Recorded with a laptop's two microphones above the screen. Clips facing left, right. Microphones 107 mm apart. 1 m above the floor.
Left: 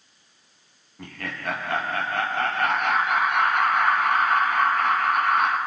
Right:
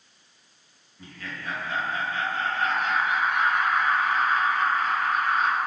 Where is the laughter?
75° left (ahead or behind), 0.7 m.